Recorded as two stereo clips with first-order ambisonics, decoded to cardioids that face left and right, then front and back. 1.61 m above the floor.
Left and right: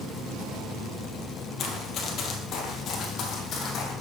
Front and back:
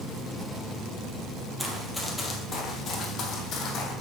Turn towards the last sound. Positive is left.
turn(degrees=35)